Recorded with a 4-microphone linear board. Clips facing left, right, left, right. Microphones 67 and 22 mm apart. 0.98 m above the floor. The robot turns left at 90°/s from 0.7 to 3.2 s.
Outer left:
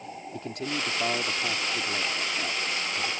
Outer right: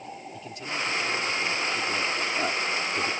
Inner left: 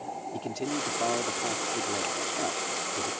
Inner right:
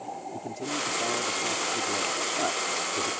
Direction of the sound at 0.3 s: 115° left.